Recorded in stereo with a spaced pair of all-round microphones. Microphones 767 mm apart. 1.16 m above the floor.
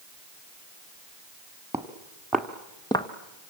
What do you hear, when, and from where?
1.7 s footsteps: 5° right (ahead or behind), 1.9 m; by 3.1 s 5° left (ahead or behind), 1.3 m